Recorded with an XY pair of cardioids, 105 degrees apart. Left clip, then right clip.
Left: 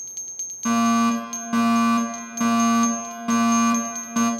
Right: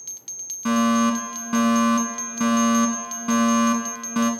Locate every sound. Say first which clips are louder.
0.7 s a fire alarm: even; straight ahead, 3.5 m